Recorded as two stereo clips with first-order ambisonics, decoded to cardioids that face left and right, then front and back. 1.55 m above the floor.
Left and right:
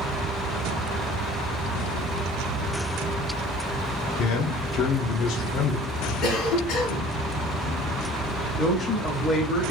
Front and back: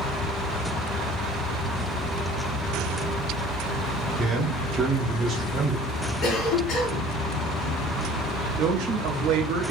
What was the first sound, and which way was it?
A man speaking, 120° left.